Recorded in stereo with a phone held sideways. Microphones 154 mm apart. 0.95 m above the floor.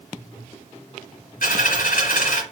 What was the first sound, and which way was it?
A dropped coin, 70° left (ahead or behind).